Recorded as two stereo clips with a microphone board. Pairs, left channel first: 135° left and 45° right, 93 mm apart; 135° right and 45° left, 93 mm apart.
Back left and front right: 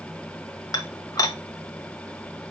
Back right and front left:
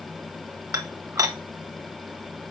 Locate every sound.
0.7 s dishes clattering: 95° left, 1.4 m